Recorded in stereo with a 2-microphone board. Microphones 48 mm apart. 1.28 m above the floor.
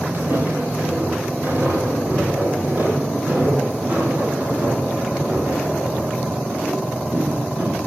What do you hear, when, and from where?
0.1 s footsteps: 40° right (ahead or behind), 7.5 m; by 7.8 s 20° right (ahead or behind), 10 m